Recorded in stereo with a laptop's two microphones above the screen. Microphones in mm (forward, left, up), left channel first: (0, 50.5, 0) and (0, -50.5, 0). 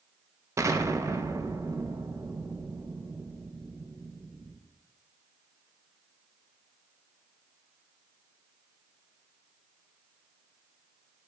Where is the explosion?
30° right (ahead or behind), 0.7 m.